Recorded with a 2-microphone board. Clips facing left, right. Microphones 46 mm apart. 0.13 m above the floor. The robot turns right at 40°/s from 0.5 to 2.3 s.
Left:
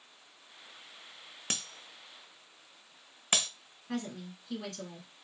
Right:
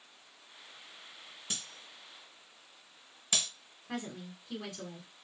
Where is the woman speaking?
10° right (ahead or behind), 1.2 m.